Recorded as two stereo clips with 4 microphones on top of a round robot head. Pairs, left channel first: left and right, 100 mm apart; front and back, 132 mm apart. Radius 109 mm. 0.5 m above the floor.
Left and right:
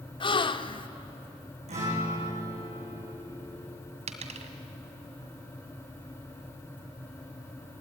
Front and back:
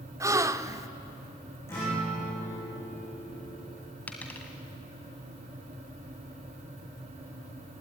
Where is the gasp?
115° left, 1.0 m.